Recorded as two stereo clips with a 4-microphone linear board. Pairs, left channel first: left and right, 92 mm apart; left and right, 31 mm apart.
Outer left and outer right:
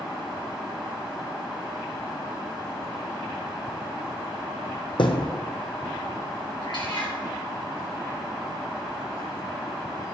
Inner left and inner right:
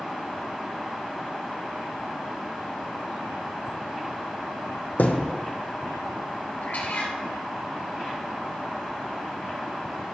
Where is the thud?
60° left (ahead or behind), 1.0 m.